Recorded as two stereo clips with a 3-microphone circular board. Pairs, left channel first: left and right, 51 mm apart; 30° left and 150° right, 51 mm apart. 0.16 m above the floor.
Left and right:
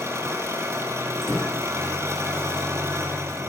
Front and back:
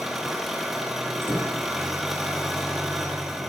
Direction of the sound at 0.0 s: 65° right.